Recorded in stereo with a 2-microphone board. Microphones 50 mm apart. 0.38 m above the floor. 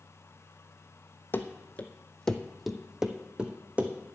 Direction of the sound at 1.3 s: 40° left (ahead or behind).